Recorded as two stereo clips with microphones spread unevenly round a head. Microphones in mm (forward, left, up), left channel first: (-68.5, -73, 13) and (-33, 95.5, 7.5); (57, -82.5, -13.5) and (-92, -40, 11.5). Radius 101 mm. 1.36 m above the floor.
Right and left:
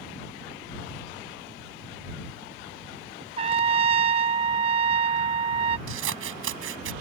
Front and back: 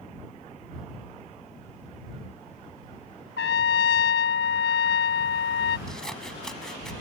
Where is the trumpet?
15° left.